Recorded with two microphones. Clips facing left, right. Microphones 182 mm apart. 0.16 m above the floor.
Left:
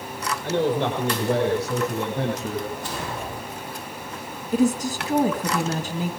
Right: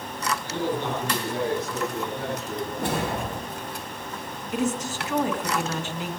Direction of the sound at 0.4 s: 75° left (ahead or behind).